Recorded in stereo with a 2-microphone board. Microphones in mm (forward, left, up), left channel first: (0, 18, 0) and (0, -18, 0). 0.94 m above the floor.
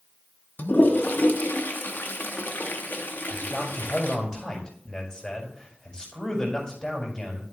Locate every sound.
0.6 s a toilet flushing: 70° left (ahead or behind), 1.0 m
3.3 s a man speaking: 25° left (ahead or behind), 4.5 m